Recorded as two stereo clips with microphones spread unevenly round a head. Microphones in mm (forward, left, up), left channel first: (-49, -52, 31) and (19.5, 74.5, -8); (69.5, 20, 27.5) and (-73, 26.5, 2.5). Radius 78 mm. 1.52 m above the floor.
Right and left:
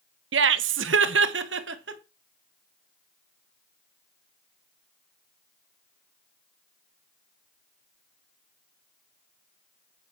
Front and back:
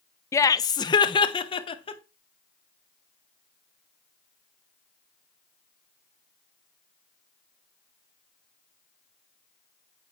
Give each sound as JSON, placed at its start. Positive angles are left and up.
{"t": 0.3, "sound": "laughter", "azimuth_deg": 60, "distance_m": 0.6}